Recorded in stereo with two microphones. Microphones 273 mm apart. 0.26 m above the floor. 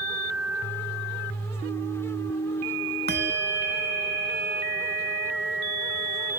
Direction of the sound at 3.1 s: 35° right (ahead or behind).